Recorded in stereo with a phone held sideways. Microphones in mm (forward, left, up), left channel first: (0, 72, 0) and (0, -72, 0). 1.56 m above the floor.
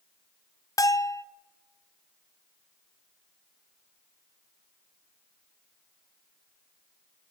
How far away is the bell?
About 0.7 m.